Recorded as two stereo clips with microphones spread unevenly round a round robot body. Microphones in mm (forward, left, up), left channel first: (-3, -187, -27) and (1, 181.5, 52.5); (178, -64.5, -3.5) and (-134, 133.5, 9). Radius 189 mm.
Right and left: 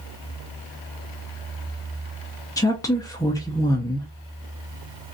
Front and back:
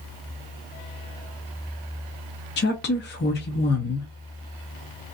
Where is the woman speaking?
45° right, 0.5 m.